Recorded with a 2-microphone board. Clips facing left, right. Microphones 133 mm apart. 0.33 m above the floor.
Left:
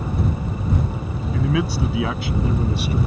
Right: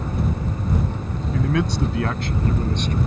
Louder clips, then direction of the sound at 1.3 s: Even; centre (ahead or behind).